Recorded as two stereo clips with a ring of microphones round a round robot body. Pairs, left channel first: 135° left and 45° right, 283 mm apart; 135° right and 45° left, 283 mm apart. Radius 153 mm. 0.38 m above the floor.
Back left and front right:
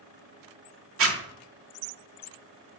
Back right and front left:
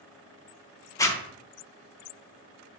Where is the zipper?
60° right, 0.9 m.